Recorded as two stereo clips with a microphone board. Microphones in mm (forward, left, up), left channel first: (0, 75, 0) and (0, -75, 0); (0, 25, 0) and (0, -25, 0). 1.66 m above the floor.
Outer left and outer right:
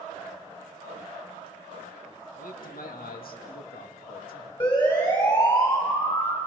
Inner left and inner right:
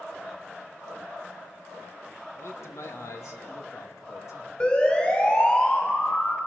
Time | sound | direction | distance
2.4 | a man speaking | 65° left (ahead or behind) | 2 m
4.6 | a siren | 30° left (ahead or behind) | 9 m